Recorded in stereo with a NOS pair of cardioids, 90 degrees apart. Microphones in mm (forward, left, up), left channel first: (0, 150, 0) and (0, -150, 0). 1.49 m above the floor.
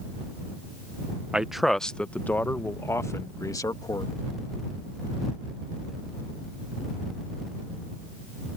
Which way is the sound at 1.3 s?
5° right.